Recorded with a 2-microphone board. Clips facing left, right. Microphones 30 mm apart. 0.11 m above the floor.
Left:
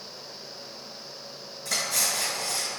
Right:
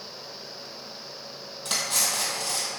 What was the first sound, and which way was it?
Cutlery clinking, 60° right (ahead or behind).